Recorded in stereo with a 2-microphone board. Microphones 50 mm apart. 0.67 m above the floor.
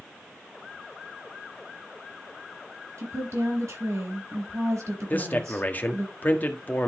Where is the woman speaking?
80° right, 4.5 m.